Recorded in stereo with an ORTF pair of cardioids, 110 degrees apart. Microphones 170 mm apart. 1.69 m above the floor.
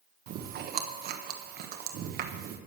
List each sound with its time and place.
0.3 s chewing: 65° right, 1.2 m